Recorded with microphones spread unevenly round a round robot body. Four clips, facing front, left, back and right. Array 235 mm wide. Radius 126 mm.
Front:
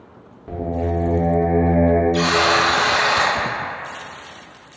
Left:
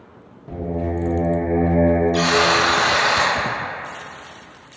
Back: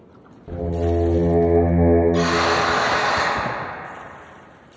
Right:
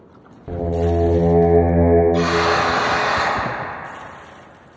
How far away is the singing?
About 0.5 m.